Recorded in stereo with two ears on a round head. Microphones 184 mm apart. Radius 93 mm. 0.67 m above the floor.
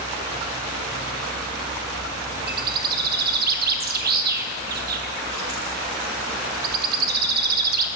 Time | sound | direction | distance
2.5 | a bird | 45° right (ahead or behind) | 0.7 m